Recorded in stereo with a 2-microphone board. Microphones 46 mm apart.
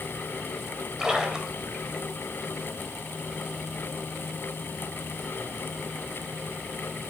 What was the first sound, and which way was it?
A splash, 15° right (ahead or behind).